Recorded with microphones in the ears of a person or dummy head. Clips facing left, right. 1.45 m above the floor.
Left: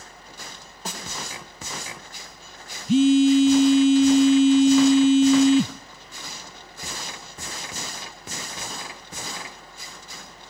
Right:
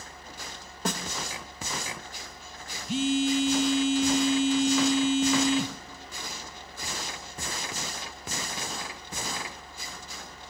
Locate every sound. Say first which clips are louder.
0.8 s a snare drum: right 5 dB; 55° right (ahead or behind), 2.5 m
2.9 s a phone buzzing: left 10 dB; 60° left (ahead or behind), 0.6 m